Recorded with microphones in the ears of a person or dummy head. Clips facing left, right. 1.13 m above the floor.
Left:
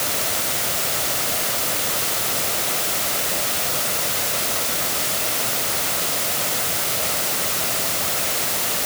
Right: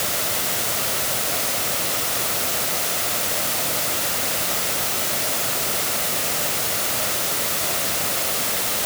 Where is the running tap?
No running tap in this recording.